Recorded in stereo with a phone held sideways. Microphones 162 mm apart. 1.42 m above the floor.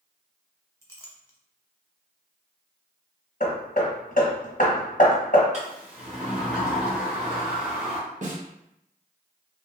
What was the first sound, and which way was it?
A clink, 15° left (ahead or behind).